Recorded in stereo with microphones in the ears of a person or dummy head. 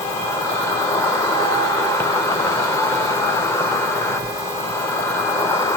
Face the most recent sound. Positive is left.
turn(degrees=15)  # may be behind; listen again after turning